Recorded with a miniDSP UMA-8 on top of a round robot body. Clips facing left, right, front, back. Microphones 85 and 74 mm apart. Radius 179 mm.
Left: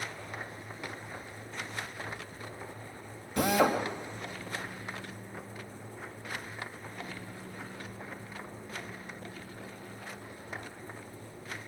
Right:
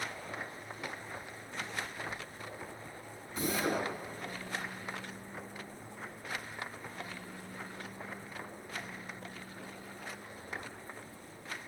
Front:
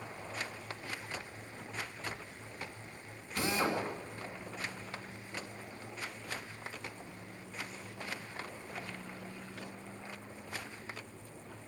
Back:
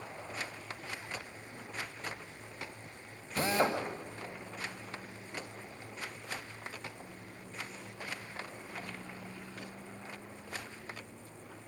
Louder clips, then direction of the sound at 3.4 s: Left 7 dB, back 3 dB; 125° left.